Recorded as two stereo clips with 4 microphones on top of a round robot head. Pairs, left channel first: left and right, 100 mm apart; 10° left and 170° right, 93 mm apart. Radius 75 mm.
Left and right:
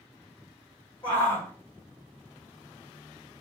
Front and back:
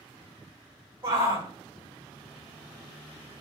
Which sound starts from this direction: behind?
A shout, at 1.0 s.